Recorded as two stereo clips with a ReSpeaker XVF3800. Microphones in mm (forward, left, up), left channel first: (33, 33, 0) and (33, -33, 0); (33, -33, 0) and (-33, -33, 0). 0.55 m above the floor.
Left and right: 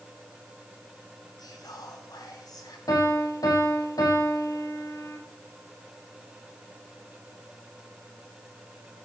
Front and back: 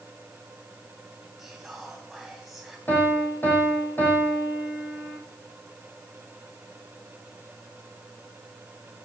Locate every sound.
1.4 s whispering: 90° left, 4 m
2.9 s a piano: 65° left, 5.5 m